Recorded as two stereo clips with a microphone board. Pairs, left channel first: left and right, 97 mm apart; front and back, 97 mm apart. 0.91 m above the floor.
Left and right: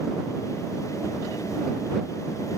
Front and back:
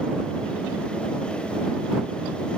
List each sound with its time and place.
Only background noise.